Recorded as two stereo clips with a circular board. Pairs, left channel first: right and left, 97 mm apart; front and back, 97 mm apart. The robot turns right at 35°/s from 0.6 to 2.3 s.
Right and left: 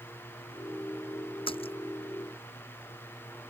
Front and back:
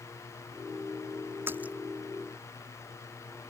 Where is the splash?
115° right; by 1.8 s 100° right.